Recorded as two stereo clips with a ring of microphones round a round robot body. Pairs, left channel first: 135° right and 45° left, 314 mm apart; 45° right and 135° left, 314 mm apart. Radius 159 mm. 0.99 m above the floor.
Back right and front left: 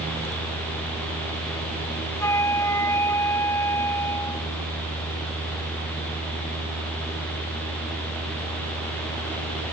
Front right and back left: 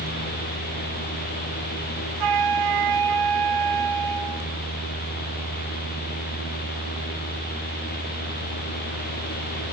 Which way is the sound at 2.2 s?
145° left.